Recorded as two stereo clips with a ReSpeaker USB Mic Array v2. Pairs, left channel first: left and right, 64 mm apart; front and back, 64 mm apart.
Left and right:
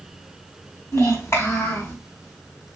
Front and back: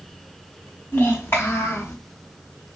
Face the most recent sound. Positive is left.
turn(degrees=45)